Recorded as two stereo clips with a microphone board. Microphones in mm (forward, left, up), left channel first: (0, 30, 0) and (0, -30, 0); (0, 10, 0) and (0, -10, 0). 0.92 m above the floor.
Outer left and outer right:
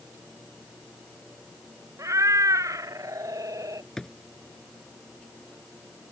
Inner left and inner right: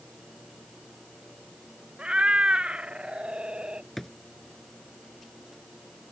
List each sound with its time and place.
2.0 s a cat meowing: 65° right (ahead or behind); by 3.9 s 80° right
4.0 s a drawer: 10° left (ahead or behind)